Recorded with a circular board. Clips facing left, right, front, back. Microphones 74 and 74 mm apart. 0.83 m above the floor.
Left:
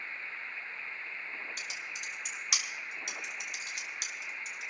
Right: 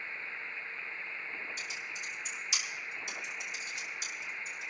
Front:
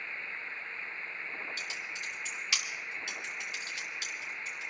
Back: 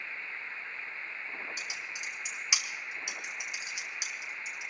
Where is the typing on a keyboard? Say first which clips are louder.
Even, even; 110° left, 2 m.